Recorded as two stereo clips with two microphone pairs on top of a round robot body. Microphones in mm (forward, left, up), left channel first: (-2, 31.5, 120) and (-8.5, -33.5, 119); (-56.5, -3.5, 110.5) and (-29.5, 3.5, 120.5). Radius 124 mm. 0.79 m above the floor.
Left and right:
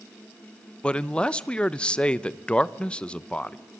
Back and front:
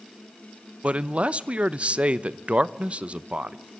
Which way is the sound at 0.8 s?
30° left.